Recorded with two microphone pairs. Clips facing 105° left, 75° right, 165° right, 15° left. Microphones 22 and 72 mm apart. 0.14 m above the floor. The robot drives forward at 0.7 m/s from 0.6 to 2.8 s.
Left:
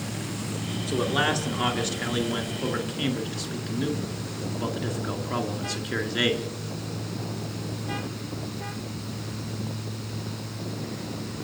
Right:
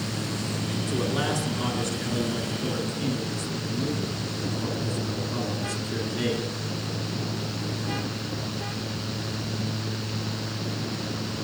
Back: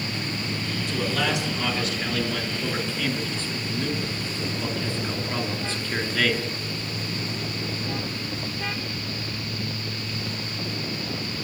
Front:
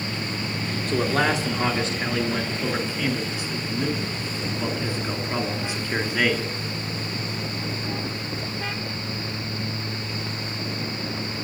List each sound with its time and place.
0.9 s a man speaking: 50° left, 2.5 m; by 6.5 s 85° left, 2 m